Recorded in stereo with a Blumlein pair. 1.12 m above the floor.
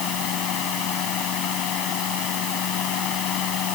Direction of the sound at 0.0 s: 35° left.